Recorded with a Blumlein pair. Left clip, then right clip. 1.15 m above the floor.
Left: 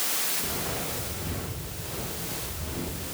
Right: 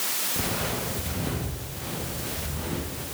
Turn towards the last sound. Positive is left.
turn(degrees=-35)